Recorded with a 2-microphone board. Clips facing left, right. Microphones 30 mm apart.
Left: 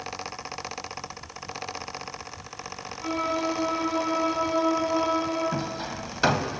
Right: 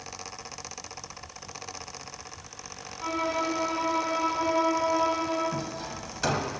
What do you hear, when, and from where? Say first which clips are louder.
3.0 s a violin: left 1 dB; 15° right (ahead or behind), 4.5 m
5.5 s hammering: left 3 dB; 30° left (ahead or behind), 0.6 m